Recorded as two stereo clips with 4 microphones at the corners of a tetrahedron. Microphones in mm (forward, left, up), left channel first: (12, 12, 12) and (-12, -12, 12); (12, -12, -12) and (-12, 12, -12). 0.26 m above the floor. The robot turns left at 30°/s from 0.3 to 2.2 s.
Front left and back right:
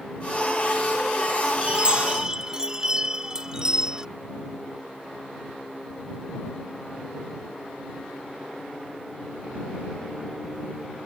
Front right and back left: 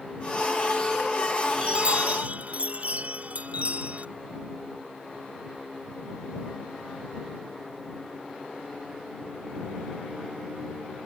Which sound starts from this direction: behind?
A chime, at 1.6 s.